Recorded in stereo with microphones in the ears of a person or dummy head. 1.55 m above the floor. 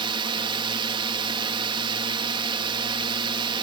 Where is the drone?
30° right (ahead or behind).